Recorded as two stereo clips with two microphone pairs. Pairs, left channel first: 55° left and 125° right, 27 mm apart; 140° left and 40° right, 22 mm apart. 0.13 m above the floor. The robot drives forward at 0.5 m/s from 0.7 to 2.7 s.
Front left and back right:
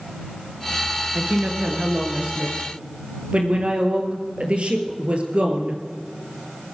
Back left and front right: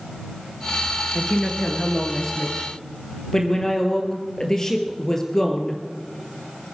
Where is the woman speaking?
150° right, 1.7 m; by 5.8 s 160° right, 2.5 m.